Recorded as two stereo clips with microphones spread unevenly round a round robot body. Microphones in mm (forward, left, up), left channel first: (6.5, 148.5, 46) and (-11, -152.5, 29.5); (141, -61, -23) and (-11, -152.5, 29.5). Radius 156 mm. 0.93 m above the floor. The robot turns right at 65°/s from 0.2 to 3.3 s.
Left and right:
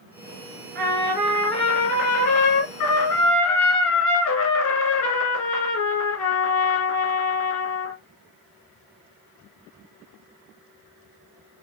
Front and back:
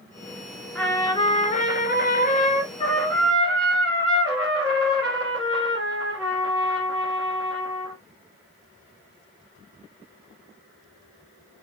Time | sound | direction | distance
0.8 | a trumpet | 40° right | 1.8 m